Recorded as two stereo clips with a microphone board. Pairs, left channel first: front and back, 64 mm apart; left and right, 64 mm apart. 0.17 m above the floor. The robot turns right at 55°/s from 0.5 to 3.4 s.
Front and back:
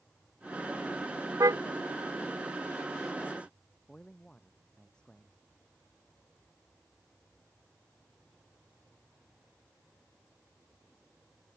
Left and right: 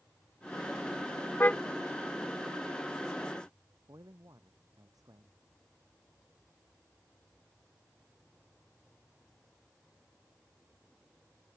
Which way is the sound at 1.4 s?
150° left.